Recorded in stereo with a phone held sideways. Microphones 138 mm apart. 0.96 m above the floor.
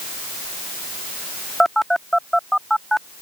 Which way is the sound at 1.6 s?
Centre (ahead or behind).